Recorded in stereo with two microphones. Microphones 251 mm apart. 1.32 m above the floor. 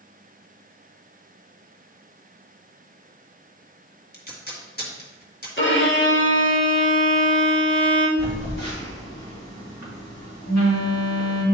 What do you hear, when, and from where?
4.1 s tape being pulled: 40° left (ahead or behind), 1.9 m
5.6 s a violin: 45° left (ahead or behind), 1.7 m
8.2 s a phone buzzing: 85° left, 3 m